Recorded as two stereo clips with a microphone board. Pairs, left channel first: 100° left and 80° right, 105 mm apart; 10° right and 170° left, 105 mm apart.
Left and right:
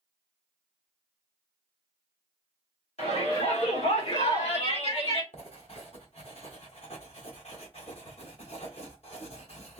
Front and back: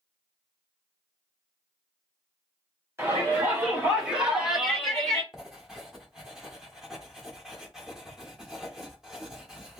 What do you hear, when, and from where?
3.0 s a shout: 100° left, 2.5 m; by 5.2 s 70° left, 1.6 m
5.3 s writing: 85° left, 1.3 m